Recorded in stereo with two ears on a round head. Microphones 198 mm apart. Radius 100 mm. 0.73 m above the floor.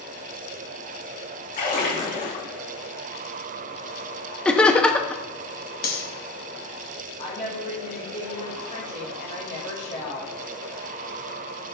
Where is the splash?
40° left (ahead or behind), 2.5 m.